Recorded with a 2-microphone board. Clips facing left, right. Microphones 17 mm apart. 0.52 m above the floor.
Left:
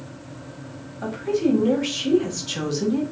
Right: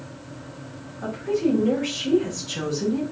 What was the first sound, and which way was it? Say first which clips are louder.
A woman speaking: left 1 dB; 40° left (ahead or behind).